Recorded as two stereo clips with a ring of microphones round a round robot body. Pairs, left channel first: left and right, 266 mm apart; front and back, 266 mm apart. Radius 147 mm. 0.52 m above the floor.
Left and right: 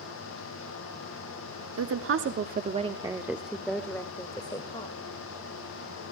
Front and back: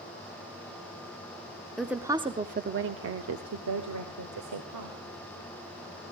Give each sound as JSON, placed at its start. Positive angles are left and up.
{"t": 1.8, "sound": "a woman speaking", "azimuth_deg": -90, "distance_m": 1.1}